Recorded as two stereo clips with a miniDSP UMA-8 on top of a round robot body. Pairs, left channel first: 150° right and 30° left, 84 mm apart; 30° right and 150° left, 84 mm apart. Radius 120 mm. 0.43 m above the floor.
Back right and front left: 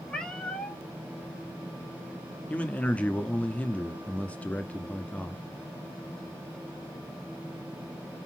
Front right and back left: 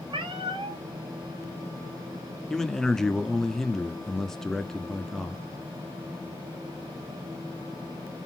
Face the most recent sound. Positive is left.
turn(degrees=-105)